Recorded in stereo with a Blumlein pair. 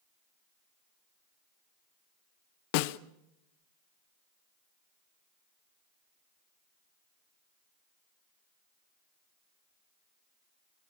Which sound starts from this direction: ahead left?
A snare drum, at 2.7 s.